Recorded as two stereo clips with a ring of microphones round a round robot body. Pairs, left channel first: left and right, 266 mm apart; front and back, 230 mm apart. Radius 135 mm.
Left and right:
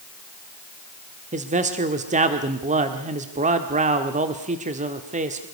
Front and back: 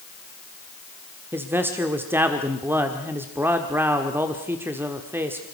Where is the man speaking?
110° right, 1.4 m.